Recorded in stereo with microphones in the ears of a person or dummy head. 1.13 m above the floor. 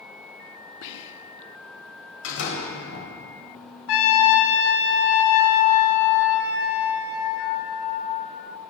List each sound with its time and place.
0.8 s whispering: 60° left (ahead or behind), 0.8 m
2.2 s a door slam: 70° left (ahead or behind), 4.5 m
3.9 s a trumpet: 70° left (ahead or behind), 1.9 m